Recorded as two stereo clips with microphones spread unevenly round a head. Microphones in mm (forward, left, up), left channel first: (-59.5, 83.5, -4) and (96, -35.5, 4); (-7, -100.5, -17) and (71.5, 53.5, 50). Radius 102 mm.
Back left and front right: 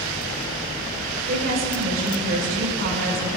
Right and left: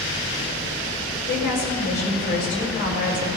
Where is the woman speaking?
85° right, 6 m.